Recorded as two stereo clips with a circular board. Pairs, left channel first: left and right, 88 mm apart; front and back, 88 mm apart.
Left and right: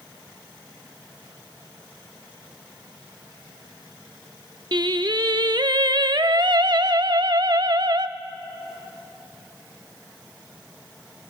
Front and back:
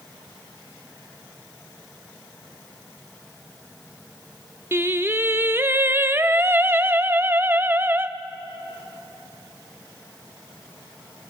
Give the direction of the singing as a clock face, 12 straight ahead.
4 o'clock.